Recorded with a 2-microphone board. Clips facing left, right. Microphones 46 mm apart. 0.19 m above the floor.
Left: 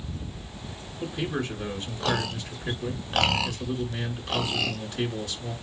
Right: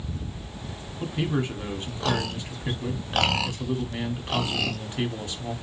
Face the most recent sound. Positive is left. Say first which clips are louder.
# right 2 dB
turn(degrees=-30)  # may be behind; listen again after turning